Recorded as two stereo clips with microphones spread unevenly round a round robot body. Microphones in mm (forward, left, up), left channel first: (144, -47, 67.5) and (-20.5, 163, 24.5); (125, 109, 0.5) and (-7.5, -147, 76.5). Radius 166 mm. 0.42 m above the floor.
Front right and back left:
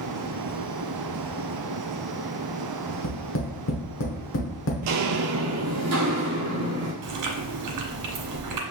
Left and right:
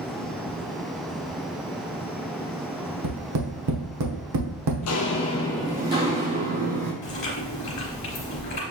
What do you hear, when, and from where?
3.0 s tapping: 90° right, 1.0 m
4.8 s footsteps: 110° left, 0.6 m; by 6.9 s 160° right, 1.3 m
7.0 s chewing: 130° left, 1.3 m